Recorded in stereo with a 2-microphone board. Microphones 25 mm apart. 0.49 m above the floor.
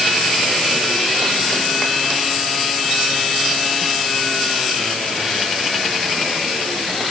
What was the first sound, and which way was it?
Only background noise.